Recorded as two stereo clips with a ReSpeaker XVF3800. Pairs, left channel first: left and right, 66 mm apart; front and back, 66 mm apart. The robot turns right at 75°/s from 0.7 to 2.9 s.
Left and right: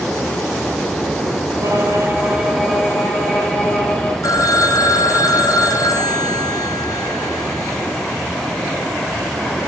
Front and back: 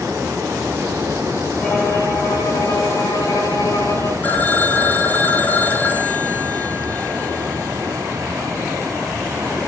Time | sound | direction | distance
1.6 | a violin | 70° right | 4.5 m
4.2 | a phone ringing | 60° left | 2.5 m